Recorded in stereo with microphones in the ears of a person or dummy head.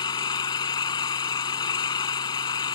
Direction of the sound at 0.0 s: 25° left (ahead or behind).